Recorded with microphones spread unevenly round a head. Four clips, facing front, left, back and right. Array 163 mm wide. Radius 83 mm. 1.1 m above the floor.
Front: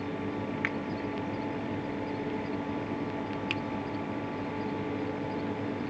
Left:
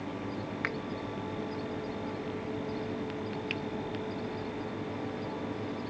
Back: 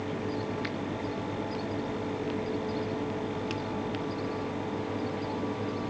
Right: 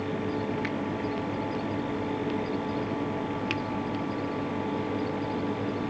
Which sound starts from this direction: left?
A finger snap, at 0.6 s.